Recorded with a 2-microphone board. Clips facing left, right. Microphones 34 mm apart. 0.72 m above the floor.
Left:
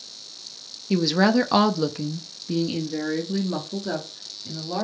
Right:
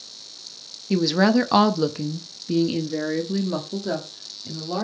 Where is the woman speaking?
5° left (ahead or behind), 0.7 m; by 4.8 s 10° right (ahead or behind), 1.7 m.